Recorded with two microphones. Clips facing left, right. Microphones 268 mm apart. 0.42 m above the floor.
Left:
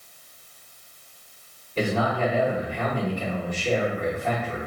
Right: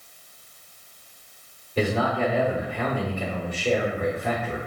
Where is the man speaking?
10° right (ahead or behind), 1.1 m.